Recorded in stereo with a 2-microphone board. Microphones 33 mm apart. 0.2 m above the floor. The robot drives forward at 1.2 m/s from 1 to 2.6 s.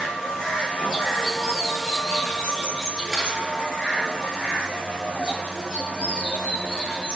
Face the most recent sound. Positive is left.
turn(degrees=-20)  # may be behind; listen again after turning